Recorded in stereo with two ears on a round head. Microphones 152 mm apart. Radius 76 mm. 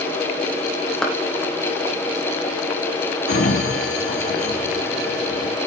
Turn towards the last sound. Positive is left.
turn(degrees=70)  # may be behind; listen again after turning